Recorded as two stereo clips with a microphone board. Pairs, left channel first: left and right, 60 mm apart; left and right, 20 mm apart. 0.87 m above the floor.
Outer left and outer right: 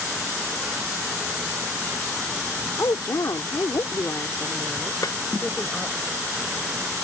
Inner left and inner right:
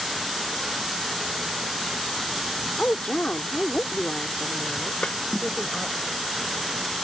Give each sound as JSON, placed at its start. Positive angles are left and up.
{"t": 2.8, "sound": "a woman speaking", "side_deg": 70}
{"t": 5.0, "sound": "a snare drum", "side_deg": 65}